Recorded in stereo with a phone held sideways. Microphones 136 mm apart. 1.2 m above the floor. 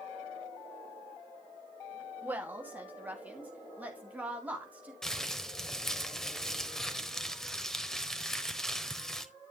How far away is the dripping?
I don't hear dripping.